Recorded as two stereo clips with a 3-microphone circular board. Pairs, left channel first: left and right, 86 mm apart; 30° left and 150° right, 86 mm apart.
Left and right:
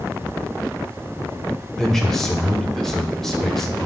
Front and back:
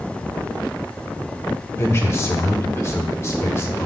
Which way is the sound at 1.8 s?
10° left.